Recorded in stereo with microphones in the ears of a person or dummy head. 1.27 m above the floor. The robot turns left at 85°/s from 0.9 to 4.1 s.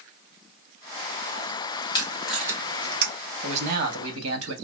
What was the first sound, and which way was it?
Tape being pulled, 25° left (ahead or behind).